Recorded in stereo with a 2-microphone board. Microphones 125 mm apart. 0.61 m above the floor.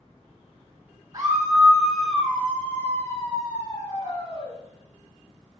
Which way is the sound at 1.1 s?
30° right (ahead or behind).